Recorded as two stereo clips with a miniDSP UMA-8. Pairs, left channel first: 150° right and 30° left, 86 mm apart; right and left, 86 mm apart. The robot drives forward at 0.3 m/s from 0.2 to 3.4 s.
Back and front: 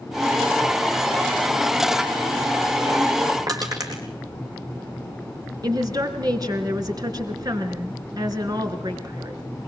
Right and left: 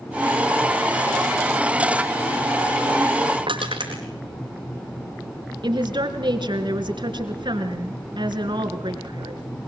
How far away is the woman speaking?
About 3 m.